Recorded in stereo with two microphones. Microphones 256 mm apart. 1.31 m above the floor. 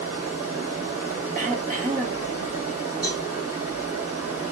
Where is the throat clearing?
35° right (ahead or behind), 0.8 m.